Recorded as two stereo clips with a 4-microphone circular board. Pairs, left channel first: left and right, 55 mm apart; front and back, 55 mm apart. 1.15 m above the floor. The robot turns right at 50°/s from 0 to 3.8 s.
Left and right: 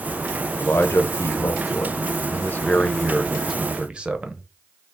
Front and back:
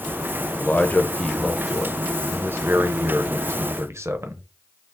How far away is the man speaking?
About 0.7 m.